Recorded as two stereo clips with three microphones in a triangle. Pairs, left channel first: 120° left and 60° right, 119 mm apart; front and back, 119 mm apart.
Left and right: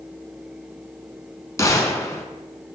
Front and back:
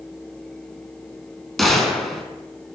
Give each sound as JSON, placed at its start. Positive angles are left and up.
{"t": 1.6, "sound": "a gunshot", "azimuth_deg": 90, "distance_m": 0.5}